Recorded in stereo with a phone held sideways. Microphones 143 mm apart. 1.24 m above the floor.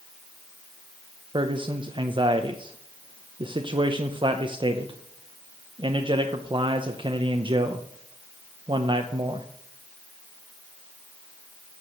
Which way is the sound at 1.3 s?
35° right (ahead or behind).